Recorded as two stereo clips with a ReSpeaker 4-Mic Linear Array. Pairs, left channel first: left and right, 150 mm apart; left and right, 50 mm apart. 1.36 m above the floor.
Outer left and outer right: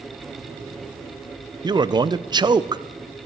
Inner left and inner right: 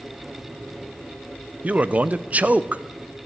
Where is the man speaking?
30° right (ahead or behind), 0.5 m.